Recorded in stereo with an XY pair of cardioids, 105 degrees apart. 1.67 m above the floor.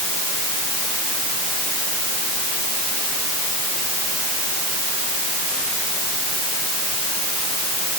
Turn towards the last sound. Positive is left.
No sound to turn to.